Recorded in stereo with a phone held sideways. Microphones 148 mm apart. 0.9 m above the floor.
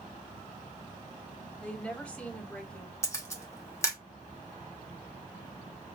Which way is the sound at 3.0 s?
20° left (ahead or behind).